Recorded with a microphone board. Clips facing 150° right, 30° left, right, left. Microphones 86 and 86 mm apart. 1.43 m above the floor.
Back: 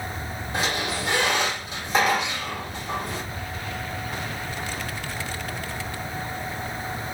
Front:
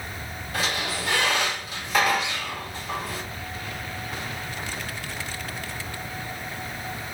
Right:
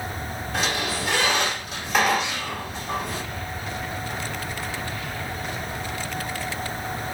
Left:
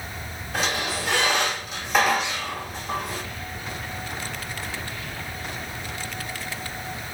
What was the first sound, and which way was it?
A squeak, 175° left.